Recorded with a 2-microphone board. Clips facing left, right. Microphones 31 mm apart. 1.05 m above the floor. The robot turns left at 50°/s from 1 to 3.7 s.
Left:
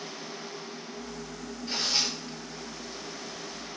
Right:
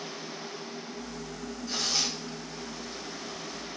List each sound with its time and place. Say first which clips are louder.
1.7 s tearing paper: left 2 dB; 45° left (ahead or behind), 8.5 m; by 3.0 s 20° right (ahead or behind), 8.5 m